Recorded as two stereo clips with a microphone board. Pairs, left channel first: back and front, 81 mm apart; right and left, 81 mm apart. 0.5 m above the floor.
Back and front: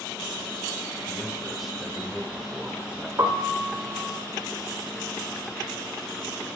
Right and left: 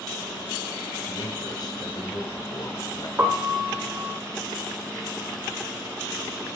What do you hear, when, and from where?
1.1 s a man speaking: 90° right, 1.6 m
3.2 s a piano: 35° left, 1.5 m